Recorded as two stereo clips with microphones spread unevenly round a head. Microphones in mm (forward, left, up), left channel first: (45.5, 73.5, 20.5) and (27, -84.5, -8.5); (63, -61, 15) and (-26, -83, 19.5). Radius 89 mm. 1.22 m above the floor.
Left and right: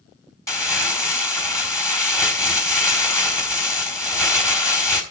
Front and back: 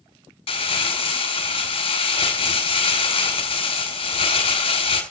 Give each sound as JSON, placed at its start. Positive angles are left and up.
{"t": 0.5, "sound": "crumpling", "azimuth_deg": 15, "distance_m": 3.5}